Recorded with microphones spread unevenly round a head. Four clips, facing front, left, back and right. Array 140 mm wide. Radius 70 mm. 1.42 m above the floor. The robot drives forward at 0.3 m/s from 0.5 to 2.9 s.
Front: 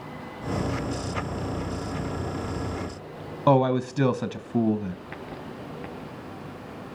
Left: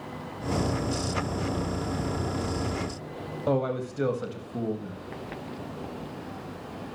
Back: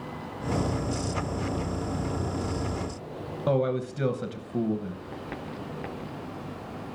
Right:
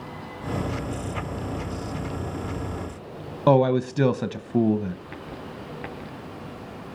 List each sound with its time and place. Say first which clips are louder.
3.5 s a man speaking: right 9 dB, front 5 dB; 50° right, 1.0 m